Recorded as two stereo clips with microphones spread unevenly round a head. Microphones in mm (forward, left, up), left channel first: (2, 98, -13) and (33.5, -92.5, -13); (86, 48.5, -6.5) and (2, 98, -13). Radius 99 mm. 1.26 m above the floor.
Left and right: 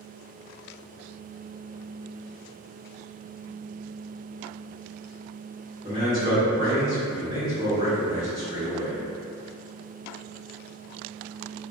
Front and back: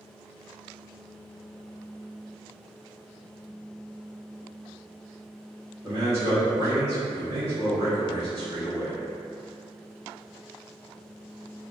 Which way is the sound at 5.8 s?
145° right.